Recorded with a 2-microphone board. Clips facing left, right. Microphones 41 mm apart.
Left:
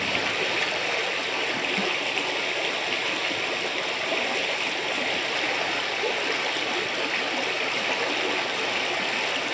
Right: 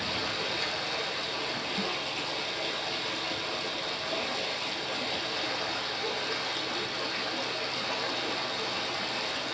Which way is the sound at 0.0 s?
65° left (ahead or behind).